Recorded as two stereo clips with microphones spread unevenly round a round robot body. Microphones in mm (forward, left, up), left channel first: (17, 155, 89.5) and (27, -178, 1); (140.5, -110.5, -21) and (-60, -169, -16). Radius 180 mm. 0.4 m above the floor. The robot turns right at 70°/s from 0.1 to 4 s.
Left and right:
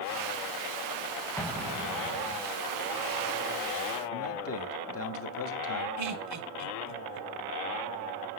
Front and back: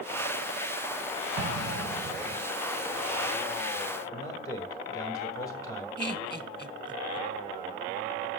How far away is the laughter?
About 1.9 m.